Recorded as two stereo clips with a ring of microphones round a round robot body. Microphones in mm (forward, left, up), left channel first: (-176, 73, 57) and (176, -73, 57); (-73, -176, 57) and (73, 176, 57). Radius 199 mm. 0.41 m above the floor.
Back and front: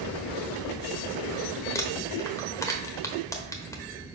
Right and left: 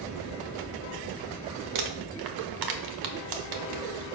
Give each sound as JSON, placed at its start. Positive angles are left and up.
{"t": 1.8, "sound": "crumpling", "azimuth_deg": 75, "distance_m": 1.0}